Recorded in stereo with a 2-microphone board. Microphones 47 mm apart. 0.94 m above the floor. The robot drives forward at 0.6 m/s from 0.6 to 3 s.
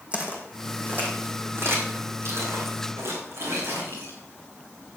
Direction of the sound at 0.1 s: 25° right (ahead or behind).